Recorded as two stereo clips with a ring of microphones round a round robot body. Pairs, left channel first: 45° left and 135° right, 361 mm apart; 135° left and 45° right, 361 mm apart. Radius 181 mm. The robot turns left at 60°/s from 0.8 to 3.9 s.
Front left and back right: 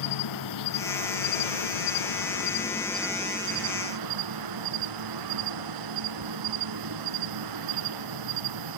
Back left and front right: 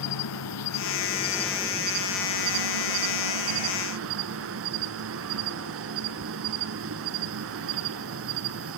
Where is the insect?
85° left, 1.3 m; by 8.8 s 100° right, 1.3 m.